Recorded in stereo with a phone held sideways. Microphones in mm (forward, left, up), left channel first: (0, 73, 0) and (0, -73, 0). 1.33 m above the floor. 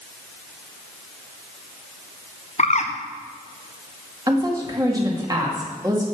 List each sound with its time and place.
2.6 s a bird: 50° left (ahead or behind), 1.0 m
4.3 s a woman speaking: 25° right (ahead or behind), 2 m